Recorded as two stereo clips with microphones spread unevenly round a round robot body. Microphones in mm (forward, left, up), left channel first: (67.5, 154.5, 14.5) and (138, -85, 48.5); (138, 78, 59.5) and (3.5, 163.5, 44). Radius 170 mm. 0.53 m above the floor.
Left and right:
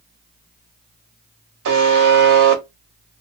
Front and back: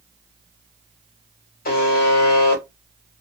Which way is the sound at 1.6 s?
70° right.